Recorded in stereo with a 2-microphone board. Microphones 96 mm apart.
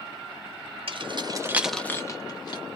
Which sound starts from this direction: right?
Keys jangling, at 0.9 s.